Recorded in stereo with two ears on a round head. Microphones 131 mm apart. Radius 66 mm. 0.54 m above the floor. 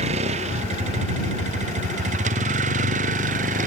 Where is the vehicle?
50° right (ahead or behind); by 3.7 s 60° right (ahead or behind).